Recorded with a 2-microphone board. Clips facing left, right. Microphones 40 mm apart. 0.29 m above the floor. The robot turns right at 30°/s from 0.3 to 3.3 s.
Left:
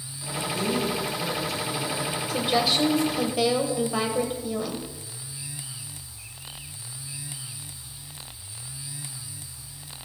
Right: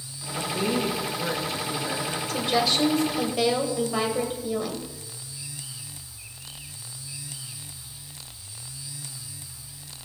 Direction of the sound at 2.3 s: 10° left (ahead or behind).